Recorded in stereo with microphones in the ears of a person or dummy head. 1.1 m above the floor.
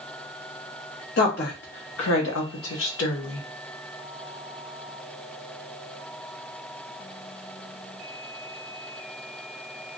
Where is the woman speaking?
45° left (ahead or behind), 1.4 m; by 3.5 s 65° left (ahead or behind), 1.1 m.